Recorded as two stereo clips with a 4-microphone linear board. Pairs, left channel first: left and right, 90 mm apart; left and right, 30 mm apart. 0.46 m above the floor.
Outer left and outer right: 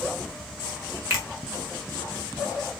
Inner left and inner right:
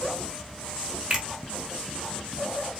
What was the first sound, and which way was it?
A finger snap, 35° right (ahead or behind).